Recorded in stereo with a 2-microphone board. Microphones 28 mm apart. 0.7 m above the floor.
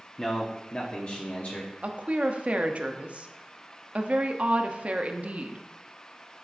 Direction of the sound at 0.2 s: 25° left (ahead or behind).